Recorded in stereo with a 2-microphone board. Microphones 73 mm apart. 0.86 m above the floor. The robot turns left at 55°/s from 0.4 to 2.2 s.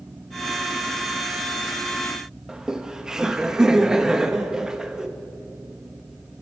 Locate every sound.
2.5 s laughter: 10° right (ahead or behind), 1.0 m